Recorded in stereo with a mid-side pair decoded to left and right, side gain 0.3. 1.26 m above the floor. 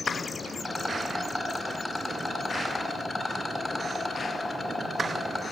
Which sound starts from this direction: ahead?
A rattle, at 0.6 s.